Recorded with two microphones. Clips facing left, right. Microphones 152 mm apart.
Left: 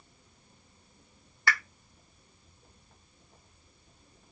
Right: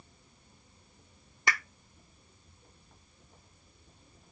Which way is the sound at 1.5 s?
20° right (ahead or behind).